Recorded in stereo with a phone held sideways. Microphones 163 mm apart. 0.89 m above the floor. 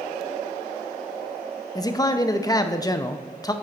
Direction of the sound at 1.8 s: 20° left (ahead or behind).